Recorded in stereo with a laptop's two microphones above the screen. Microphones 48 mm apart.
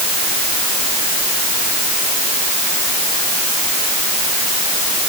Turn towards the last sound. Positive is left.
No sound to turn to.